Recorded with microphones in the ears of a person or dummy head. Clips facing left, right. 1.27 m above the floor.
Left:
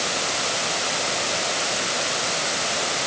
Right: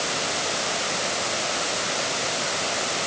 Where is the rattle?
I don't hear a rattle.